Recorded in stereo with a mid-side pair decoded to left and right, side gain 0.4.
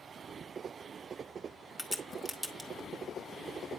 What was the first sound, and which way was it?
A crack, 20° left.